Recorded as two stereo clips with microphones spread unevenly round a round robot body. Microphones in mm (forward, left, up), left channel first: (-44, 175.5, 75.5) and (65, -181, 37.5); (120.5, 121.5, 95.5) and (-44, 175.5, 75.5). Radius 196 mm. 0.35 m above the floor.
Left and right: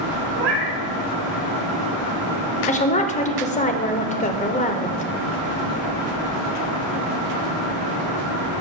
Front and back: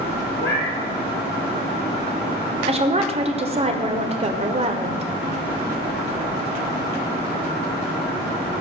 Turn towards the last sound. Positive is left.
turn(degrees=175)